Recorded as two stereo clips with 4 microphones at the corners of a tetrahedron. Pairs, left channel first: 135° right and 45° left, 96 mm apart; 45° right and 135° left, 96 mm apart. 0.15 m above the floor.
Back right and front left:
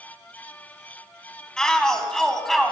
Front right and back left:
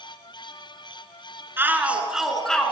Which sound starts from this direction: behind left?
A shout, at 1.6 s.